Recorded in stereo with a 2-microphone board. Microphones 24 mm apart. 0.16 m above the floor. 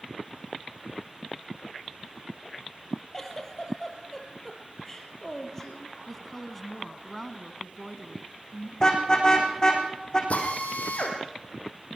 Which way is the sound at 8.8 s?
25° left (ahead or behind).